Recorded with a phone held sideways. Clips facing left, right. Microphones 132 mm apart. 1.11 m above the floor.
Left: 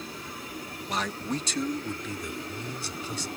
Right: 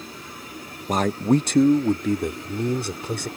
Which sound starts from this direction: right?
A man speaking, at 0.9 s.